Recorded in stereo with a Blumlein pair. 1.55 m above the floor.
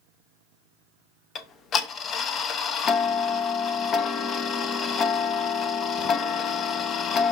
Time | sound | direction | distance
1.4 | ticking | 25° left | 0.7 m